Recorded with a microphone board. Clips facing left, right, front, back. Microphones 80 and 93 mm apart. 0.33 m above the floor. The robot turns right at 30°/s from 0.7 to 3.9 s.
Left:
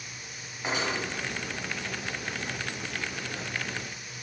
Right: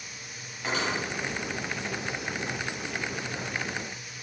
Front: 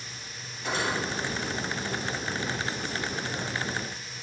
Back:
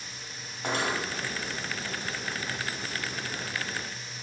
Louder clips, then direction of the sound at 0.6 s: Right 1 dB, even; 160° left.